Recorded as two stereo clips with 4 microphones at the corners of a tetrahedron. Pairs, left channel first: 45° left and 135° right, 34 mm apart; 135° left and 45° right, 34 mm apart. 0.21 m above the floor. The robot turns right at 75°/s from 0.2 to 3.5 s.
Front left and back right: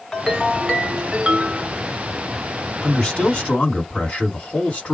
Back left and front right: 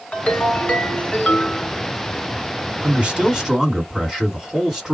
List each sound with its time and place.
0.1 s a ringtone: 115° left, 1.6 m; by 1.7 s 135° right, 1.6 m
2.8 s a man speaking: 25° right, 2 m; by 5.0 s 25° left, 2 m